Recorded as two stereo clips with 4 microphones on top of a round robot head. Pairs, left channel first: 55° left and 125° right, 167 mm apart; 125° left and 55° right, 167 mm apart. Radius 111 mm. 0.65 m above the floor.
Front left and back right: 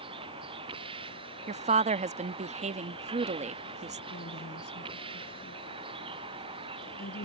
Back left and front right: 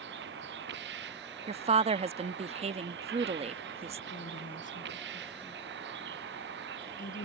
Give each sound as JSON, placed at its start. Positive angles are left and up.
{"t": 0.0, "sound": "a vehicle", "azimuth_deg": -65}
{"t": 1.5, "sound": "a woman speaking", "azimuth_deg": -95}
{"t": 4.1, "sound": "a woman speaking", "azimuth_deg": 80}